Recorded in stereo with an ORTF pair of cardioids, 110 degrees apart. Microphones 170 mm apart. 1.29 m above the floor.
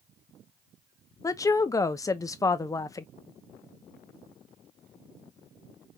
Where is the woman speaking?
20° left, 0.8 m.